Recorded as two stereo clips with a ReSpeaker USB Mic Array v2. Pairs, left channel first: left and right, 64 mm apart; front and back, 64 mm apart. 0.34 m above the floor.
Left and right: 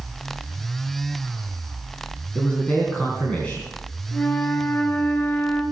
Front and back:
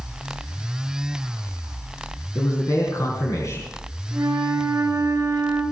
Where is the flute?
150° left, 3.5 m.